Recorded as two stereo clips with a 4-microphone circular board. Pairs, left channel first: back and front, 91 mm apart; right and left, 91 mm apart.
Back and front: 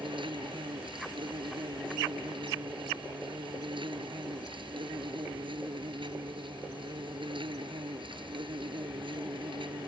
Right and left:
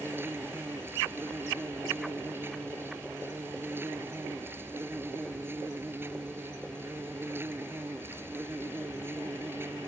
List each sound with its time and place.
0.0 s an insect: 25° left